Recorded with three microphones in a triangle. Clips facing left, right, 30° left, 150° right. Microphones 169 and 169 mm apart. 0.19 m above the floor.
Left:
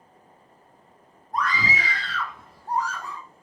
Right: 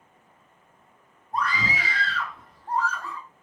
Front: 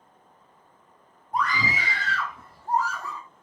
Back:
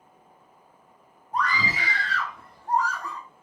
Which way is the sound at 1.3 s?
45° right.